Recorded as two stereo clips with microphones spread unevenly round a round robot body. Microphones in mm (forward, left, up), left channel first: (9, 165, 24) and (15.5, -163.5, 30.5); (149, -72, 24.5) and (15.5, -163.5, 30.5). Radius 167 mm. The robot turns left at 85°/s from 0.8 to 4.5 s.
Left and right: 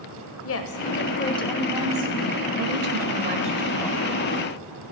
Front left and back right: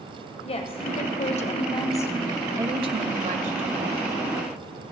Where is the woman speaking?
75° left, 1.6 m; by 4.1 s 155° left, 1.6 m.